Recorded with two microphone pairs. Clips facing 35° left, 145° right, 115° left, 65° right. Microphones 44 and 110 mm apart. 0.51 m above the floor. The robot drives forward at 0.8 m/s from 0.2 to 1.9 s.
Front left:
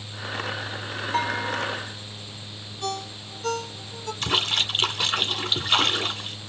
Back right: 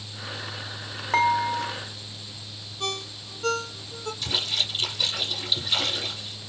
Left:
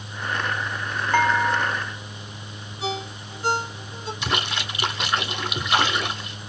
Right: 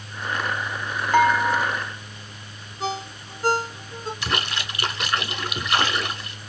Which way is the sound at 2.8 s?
115° right.